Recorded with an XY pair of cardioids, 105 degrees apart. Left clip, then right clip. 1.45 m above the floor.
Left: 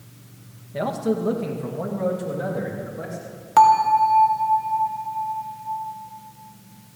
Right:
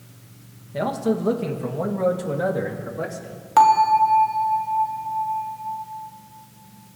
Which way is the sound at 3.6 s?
Straight ahead.